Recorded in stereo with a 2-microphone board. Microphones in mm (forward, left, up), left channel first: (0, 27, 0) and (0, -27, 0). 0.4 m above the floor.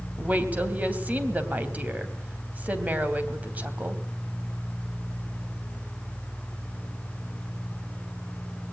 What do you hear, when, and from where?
0.2 s a woman speaking: 30° right (ahead or behind), 3 m